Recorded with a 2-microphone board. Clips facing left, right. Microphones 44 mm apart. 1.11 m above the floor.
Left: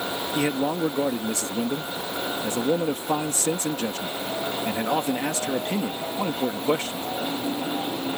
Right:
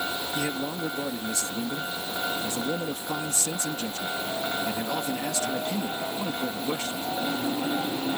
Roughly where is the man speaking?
Left.